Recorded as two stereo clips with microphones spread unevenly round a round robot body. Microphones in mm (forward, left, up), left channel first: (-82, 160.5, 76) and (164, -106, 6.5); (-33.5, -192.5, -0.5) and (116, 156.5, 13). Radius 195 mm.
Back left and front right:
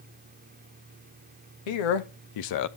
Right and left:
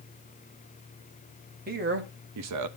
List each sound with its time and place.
1.7 s a man speaking: 135° left, 1.1 m; by 2.7 s 90° left, 0.5 m